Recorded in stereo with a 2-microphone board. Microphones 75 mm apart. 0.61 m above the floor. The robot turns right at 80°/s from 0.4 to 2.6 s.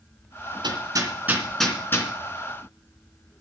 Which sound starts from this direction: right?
Hammering, at 0.6 s.